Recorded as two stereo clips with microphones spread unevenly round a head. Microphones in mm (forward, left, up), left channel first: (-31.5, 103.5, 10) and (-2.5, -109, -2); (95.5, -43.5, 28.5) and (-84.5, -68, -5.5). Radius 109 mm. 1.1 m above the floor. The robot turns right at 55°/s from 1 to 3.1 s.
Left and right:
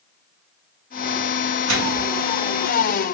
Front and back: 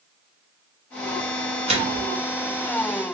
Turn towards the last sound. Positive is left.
turn(degrees=-30)